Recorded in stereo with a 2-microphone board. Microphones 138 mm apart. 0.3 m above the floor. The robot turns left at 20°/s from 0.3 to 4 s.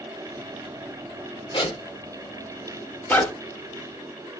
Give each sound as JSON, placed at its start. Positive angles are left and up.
{"t": 1.5, "sound": "a zipper", "side_deg": 35, "distance_m": 0.6}